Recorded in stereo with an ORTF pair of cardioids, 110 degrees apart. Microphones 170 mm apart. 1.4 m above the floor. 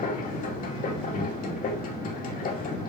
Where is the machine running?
55° left, 2.5 m.